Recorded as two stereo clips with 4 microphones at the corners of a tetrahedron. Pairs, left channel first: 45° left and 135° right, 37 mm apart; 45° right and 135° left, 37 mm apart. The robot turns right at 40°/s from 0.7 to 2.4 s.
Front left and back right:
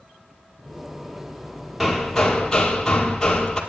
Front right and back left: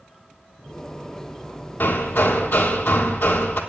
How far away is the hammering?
About 1.5 m.